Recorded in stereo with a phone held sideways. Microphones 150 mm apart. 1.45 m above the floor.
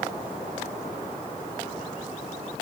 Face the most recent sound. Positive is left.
No sound to turn to.